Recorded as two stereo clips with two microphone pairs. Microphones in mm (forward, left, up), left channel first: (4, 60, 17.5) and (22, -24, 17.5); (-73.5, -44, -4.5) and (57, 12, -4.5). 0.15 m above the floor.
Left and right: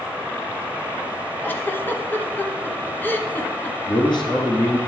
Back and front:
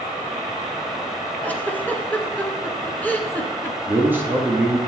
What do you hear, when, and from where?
1.4 s a giggle: 135° left, 0.8 m
3.9 s a man speaking: 100° left, 1.9 m